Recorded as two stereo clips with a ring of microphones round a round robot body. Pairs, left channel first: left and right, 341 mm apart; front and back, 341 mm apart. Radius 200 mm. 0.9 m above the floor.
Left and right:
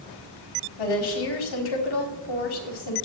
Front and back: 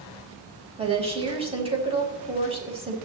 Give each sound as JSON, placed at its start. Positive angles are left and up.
{"t": 0.8, "sound": "a woman speaking", "azimuth_deg": 105, "distance_m": 5.0}